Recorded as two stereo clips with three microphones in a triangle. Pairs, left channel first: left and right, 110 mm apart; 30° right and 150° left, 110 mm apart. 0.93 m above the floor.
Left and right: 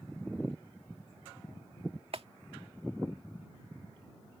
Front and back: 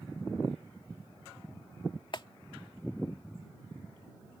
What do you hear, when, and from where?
2.1 s a clap: 70° right